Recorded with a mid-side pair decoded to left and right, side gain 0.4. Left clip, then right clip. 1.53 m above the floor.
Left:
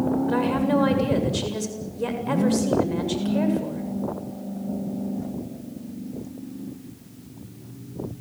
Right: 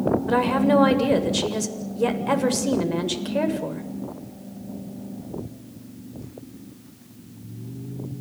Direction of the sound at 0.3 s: 35° right.